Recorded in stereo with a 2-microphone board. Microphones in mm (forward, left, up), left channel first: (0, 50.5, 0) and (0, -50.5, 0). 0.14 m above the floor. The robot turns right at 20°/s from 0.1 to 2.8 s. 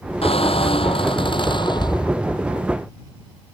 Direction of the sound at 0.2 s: 100° left.